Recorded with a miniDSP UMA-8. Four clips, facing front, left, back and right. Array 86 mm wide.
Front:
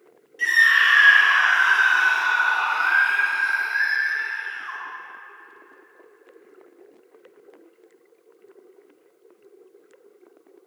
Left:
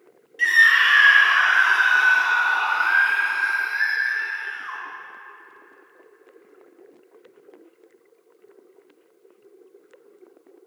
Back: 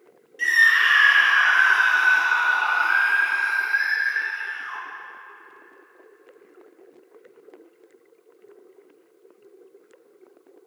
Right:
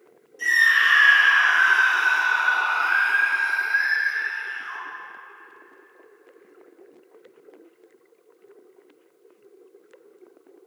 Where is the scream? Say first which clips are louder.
Left 3 dB, front 1 dB; 95° left, 1.4 m; by 4.8 s 70° left, 7 m.